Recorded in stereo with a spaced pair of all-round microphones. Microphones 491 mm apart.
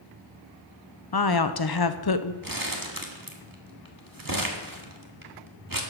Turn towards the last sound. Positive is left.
turn(degrees=-45)  # may be behind; listen again after turning